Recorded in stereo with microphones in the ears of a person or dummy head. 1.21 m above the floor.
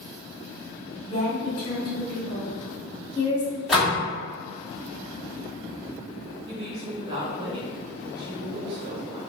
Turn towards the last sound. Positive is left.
turn(degrees=-30)  # may be behind; listen again after turning